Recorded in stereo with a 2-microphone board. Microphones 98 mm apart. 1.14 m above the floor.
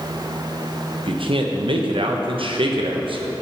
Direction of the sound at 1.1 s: 70° right (ahead or behind).